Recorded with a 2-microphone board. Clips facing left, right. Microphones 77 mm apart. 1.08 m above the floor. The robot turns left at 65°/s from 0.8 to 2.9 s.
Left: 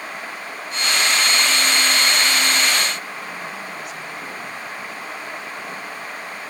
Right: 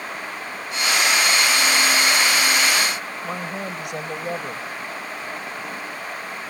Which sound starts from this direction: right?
A woman speaking, at 3.2 s.